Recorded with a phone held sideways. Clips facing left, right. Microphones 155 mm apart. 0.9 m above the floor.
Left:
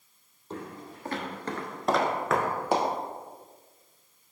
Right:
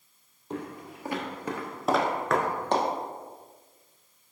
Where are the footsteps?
15° right (ahead or behind), 1.6 m; by 2.9 s 10° left (ahead or behind), 1.1 m.